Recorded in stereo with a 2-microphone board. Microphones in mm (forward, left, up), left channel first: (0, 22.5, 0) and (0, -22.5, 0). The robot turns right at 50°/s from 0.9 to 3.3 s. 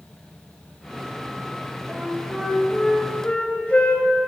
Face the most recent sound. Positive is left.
turn(degrees=30)